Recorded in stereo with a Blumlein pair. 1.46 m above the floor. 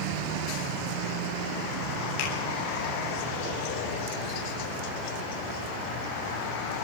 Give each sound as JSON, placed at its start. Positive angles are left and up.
{"t": 2.2, "sound": "a finger snap", "azimuth_deg": 40, "distance_m": 10.0}